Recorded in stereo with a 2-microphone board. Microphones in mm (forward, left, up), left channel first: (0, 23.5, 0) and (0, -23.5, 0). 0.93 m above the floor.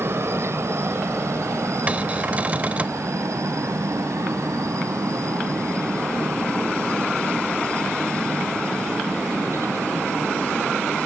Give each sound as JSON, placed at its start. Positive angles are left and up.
{"t": 0.0, "sound": "a helicopter", "side_deg": -55}
{"t": 1.9, "sound": "a cupboard door", "side_deg": -30}